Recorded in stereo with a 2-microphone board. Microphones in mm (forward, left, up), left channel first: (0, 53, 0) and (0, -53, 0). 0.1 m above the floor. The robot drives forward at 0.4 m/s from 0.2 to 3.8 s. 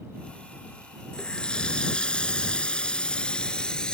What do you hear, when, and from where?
1.1 s a running tap: 10° left (ahead or behind)